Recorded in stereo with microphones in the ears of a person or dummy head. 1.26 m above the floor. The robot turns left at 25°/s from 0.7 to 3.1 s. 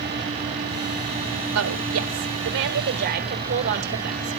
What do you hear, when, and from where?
1.6 s a woman speaking: 85° right, 1.9 m; by 4.4 s 125° right, 1.9 m